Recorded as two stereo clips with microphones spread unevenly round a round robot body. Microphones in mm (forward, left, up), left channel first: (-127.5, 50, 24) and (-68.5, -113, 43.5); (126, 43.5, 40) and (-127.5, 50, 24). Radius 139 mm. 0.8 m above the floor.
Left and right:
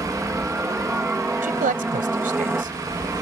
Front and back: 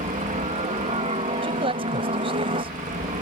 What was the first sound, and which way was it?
A helicopter, 145° right.